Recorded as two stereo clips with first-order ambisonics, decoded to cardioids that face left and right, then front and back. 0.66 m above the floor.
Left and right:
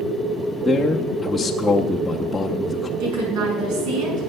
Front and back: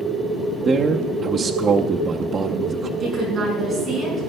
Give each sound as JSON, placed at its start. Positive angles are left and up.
{"t": 0.7, "sound": "a man speaking", "azimuth_deg": 165, "distance_m": 0.6}
{"t": 3.0, "sound": "a woman speaking", "azimuth_deg": -100, "distance_m": 5.5}